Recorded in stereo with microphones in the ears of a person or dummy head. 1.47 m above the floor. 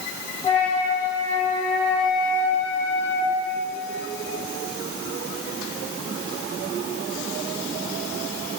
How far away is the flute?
About 4 m.